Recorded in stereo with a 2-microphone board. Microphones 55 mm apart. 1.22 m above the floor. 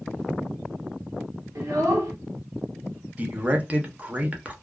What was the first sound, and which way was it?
A child speaking, 75° right (ahead or behind).